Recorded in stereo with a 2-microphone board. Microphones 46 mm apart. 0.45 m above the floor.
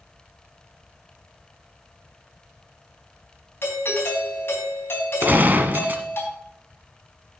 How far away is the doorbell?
About 4 m.